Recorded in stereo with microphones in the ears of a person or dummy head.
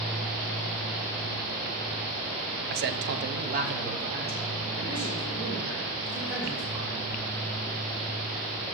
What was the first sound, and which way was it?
A man speaking, 50° right (ahead or behind).